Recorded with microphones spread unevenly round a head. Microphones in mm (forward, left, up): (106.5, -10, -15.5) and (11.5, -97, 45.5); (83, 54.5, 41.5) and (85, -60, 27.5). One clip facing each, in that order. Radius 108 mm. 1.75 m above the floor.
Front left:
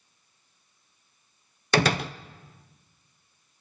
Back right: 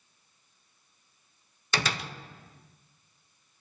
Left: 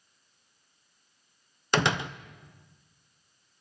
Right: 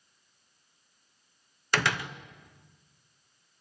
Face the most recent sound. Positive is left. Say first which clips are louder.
# front left 9 dB, left 3 dB
turn(degrees=90)